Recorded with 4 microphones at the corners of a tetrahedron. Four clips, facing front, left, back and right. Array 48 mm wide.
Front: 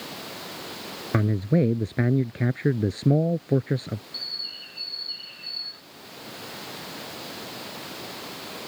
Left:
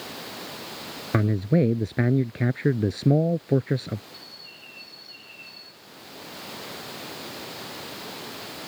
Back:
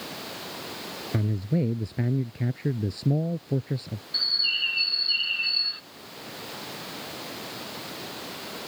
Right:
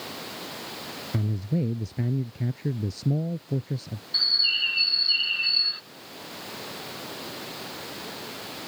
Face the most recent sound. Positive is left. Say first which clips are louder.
# right 21 dB, back 14 dB
turn(degrees=-125)